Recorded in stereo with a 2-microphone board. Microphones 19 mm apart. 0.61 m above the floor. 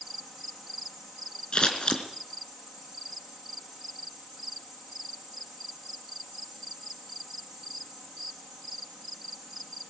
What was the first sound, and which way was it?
Scissors, 55° left (ahead or behind).